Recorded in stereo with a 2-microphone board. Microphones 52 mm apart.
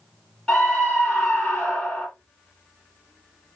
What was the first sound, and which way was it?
A scream, 20° left (ahead or behind).